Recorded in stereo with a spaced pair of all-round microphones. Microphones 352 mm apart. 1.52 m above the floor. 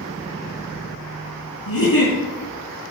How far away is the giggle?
About 4.5 m.